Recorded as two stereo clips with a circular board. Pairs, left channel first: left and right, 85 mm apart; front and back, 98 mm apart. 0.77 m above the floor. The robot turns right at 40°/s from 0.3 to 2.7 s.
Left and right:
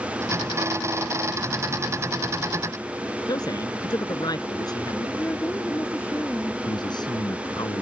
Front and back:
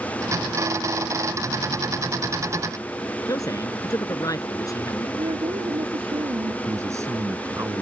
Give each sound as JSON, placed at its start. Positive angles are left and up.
{"t": 3.3, "sound": "a man speaking", "azimuth_deg": 55}
{"t": 5.2, "sound": "a woman speaking", "azimuth_deg": 150}
{"t": 6.6, "sound": "a man speaking", "azimuth_deg": 120}